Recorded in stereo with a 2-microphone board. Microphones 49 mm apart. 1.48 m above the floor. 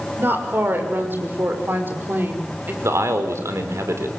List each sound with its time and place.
0.2 s a woman speaking: 50° right (ahead or behind), 6.5 m; by 2.7 s 45° right (ahead or behind), 5 m
2.8 s a man speaking: 70° right (ahead or behind), 4.5 m